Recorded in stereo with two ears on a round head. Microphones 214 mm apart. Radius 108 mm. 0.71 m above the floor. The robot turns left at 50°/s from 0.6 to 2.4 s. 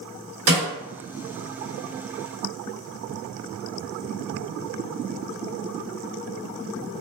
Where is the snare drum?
70° right (ahead or behind), 1.7 m.